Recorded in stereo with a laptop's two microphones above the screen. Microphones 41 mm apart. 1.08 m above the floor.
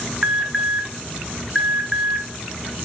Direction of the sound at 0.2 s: 15° right (ahead or behind).